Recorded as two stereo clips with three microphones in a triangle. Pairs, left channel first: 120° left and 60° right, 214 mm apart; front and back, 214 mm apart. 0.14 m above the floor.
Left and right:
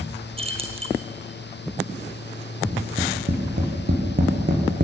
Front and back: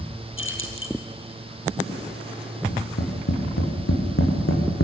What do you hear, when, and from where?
0.4 s keys jangling: straight ahead, 2.5 m
2.7 s tapping: 10° right, 5 m